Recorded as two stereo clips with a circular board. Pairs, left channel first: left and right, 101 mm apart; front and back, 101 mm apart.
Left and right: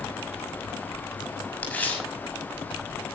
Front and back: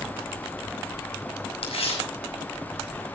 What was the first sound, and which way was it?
Tearing paper, 15° left.